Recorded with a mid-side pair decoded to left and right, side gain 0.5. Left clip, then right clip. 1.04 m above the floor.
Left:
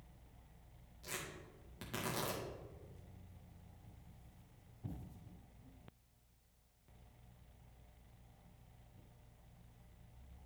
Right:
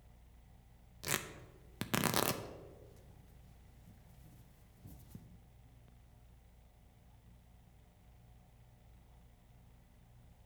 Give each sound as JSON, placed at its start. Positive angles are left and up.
{"t": 1.0, "sound": "tearing paper", "azimuth_deg": -65, "distance_m": 0.6}